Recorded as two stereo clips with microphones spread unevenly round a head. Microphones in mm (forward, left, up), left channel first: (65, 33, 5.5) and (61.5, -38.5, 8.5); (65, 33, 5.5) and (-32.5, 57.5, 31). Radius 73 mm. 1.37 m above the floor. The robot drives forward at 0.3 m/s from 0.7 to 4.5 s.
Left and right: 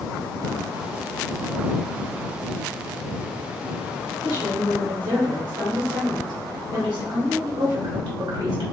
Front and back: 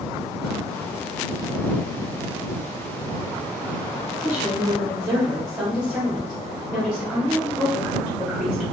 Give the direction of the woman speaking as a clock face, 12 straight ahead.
3 o'clock.